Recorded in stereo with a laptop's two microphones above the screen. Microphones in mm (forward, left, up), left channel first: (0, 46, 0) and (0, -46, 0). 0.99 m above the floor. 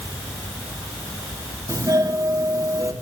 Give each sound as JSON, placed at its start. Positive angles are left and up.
{"t": 1.7, "sound": "a doorbell", "side_deg": -40, "distance_m": 3.0}